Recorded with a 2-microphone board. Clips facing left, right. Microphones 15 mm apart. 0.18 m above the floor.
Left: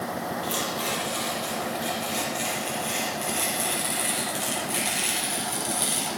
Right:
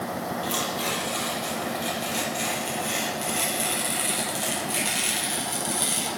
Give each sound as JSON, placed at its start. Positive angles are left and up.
{"t": 0.4, "sound": "tearing paper", "side_deg": 0, "distance_m": 4.0}